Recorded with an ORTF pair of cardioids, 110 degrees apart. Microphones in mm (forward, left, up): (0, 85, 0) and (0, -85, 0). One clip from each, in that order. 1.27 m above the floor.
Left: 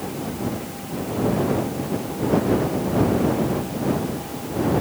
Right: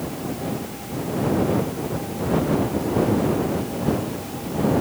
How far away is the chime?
No chime in this recording.